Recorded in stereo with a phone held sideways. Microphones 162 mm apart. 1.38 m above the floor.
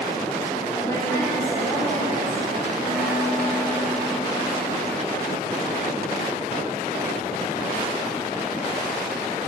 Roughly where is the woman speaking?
Left.